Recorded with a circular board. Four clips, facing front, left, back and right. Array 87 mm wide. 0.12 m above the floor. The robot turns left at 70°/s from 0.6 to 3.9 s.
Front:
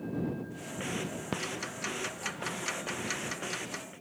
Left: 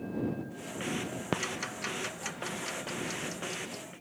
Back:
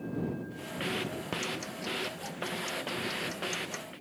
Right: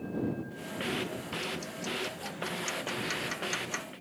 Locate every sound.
1.3 s ticking: 85° left; by 3.9 s 95° right